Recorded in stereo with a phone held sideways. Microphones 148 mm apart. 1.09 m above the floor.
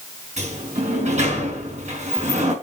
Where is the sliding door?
60° right (ahead or behind), 4.5 m.